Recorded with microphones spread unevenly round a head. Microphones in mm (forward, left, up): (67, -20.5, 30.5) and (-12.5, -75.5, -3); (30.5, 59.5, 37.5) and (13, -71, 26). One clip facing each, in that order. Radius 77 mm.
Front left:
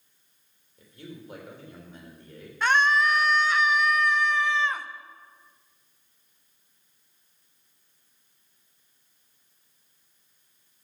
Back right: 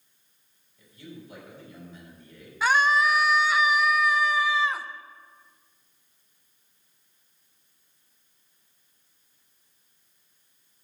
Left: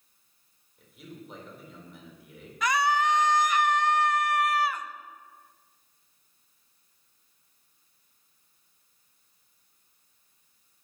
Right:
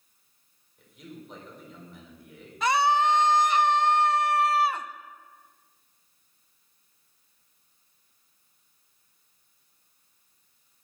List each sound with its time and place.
0.8 s a man speaking: 5° right, 3.5 m
2.6 s a scream: 105° right, 0.5 m